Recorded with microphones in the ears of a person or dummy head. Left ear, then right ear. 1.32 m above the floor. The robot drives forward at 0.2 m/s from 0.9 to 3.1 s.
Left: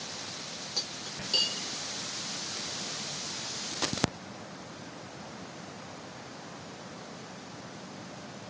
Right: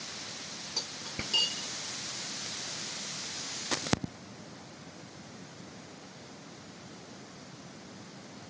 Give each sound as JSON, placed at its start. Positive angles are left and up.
{"t": 0.8, "sound": "cutlery clinking", "side_deg": 0, "distance_m": 0.7}